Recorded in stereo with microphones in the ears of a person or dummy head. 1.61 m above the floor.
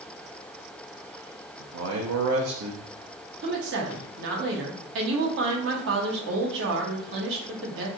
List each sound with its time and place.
1.6 s a man speaking: 80° right, 0.6 m
3.4 s a woman speaking: 65° right (ahead or behind), 0.9 m